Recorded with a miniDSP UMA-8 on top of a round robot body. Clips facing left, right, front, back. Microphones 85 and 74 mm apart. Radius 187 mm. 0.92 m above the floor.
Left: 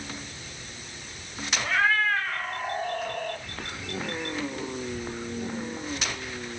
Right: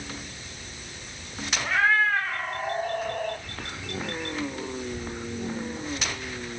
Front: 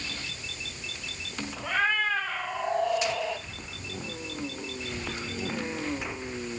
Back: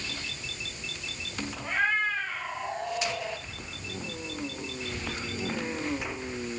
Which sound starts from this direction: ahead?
A cat meowing, at 1.6 s.